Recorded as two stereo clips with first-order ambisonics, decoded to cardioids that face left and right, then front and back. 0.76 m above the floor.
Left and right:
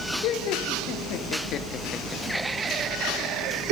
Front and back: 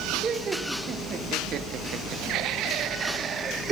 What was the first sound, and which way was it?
Laughter, 110° left.